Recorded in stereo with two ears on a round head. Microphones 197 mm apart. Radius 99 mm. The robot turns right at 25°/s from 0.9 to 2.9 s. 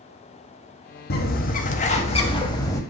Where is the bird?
120° left, 0.6 m; by 2.8 s 165° left, 0.6 m.